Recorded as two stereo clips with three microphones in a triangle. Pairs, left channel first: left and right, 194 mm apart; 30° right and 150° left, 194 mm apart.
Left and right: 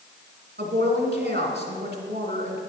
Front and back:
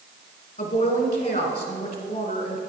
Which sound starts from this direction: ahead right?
A woman speaking, at 0.6 s.